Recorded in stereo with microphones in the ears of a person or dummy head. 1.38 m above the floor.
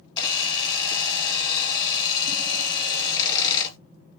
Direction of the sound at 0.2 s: 25° left (ahead or behind).